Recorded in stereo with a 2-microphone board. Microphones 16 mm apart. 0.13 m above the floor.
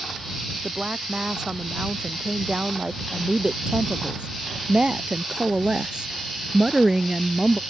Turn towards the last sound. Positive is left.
turn(degrees=-15)  # may be behind; listen again after turning